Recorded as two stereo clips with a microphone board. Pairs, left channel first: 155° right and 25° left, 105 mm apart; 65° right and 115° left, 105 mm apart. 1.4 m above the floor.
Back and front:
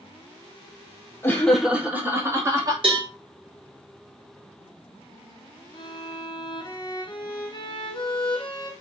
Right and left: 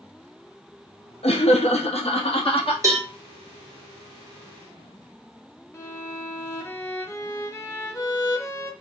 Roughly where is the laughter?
Right.